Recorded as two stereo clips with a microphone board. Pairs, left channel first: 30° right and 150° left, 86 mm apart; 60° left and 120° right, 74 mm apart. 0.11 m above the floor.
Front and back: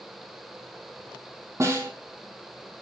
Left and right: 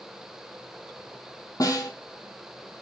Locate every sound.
1.6 s a snare drum: 95° left, 0.7 m